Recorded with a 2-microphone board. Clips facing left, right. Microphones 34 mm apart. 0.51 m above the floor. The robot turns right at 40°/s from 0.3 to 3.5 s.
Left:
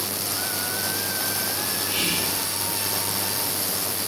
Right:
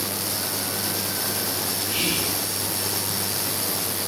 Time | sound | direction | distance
1.9 | whispering | 5° left (ahead or behind) | 1.4 m